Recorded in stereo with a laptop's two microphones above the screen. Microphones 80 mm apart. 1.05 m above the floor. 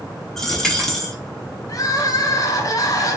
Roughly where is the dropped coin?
Centre.